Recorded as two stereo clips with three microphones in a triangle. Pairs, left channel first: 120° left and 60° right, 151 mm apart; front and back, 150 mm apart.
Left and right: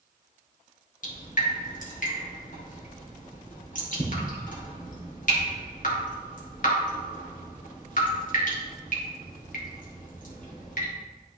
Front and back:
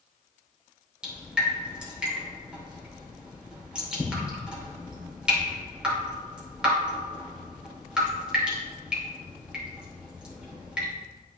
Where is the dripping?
95° left, 2 m.